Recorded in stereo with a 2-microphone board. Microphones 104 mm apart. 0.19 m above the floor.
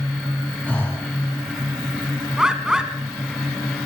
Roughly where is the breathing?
Centre.